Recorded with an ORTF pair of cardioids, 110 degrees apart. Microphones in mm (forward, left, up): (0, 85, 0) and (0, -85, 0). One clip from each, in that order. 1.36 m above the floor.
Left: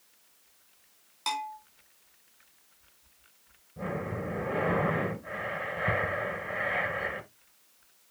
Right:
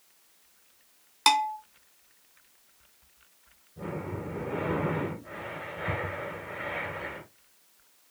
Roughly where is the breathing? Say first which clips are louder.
Left 2 dB; ahead left.